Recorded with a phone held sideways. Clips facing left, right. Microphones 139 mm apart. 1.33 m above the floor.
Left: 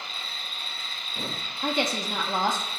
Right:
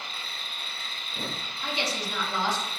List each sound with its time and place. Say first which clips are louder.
0.0 s an insect: left 1 dB; 60° right (ahead or behind), 1.9 m
1.6 s a woman speaking: left 5 dB; 50° left (ahead or behind), 0.6 m